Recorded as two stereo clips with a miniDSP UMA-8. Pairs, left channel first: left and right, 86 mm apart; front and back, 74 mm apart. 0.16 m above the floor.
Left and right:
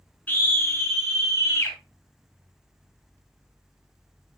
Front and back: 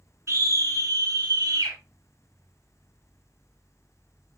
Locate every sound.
0.3 s a scream: 150° left, 1.5 m